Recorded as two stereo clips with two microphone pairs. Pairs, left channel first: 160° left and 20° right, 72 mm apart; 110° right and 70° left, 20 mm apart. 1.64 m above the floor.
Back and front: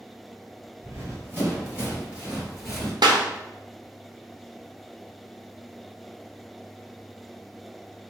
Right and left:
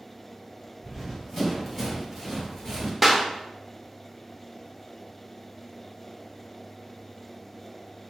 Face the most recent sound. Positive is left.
turn(degrees=-15)